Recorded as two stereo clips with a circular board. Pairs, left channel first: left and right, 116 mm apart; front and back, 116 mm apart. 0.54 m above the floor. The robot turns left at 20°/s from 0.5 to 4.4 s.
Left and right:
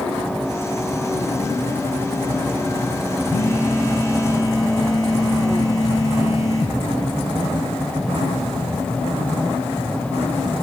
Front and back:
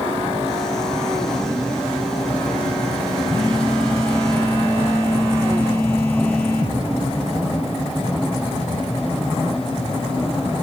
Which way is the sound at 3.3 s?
135° right.